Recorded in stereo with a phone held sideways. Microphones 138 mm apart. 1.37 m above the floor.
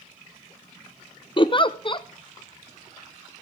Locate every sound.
1.4 s a giggle: 35° left (ahead or behind), 0.5 m